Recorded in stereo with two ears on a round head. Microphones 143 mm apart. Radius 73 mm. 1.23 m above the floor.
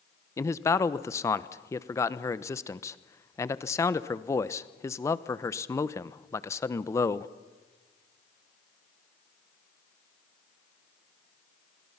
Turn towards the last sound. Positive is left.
turn(degrees=20)  # may be behind; listen again after turning